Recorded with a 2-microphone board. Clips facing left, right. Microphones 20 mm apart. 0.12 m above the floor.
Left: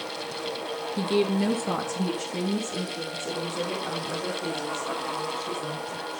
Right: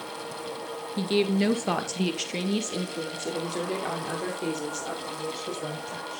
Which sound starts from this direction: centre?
A woman speaking, at 1.0 s.